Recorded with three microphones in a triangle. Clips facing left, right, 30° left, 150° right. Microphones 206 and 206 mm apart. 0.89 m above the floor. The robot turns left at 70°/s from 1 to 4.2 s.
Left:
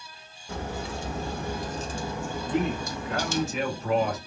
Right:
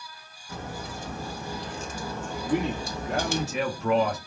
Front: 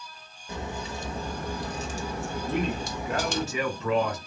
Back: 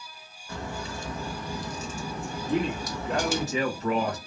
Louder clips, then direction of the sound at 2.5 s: Right 1 dB, back 2 dB; 5° right.